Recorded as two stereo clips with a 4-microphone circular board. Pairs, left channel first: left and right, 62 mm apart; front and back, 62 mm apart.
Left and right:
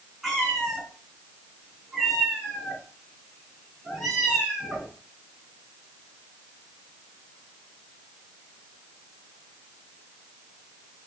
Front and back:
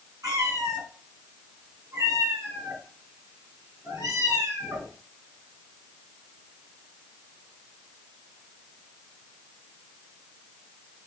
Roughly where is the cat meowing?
Behind.